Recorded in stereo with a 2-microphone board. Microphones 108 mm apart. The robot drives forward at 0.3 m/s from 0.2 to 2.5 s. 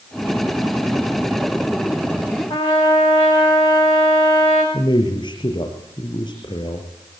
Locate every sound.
2.5 s a trumpet: 75° left (ahead or behind), 8 m
4.7 s a man speaking: 55° left (ahead or behind), 6.5 m